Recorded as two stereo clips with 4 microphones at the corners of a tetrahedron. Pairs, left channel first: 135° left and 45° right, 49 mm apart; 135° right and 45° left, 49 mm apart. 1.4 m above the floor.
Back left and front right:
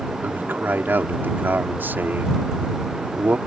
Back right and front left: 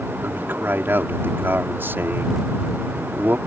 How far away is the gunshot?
No gunshot in this recording.